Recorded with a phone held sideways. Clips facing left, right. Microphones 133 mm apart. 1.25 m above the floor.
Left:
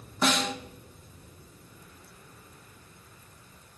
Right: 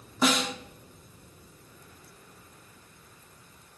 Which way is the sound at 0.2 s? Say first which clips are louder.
Right 1 dB; 5° right (ahead or behind).